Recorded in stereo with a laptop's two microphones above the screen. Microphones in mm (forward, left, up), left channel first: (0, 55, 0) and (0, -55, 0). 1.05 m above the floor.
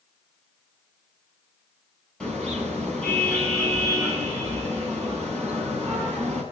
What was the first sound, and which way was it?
A car horn, 10° left (ahead or behind).